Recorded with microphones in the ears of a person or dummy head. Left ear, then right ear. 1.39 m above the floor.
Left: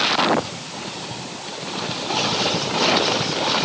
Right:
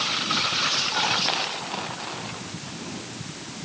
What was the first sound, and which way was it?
Only background noise.